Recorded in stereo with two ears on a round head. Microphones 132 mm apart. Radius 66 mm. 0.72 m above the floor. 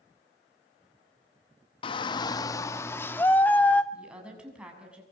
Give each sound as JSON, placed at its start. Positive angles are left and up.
{"t": 1.8, "sound": "a shout", "side_deg": 35, "distance_m": 0.7}
{"t": 3.9, "sound": "a woman speaking", "side_deg": -10, "distance_m": 7.0}